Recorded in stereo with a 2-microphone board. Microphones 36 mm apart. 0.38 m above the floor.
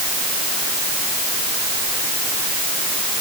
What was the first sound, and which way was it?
Only background noise.